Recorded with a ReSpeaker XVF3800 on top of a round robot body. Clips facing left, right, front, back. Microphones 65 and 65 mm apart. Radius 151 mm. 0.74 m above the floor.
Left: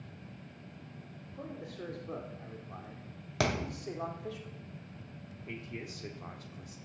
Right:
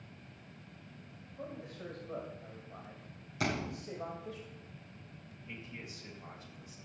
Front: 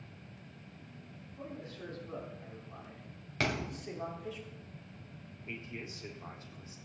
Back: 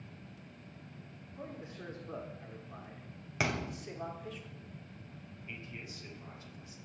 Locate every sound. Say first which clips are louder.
1.3 s a man speaking: left 1 dB, front 1 dB; 110° left, 3.5 m; by 4.4 s 80° left, 3 m
3.4 s a thud: left 3 dB, even; 95° left, 1.8 m
5.5 s a man speaking: left 4 dB, front 4 dB; 60° left, 2 m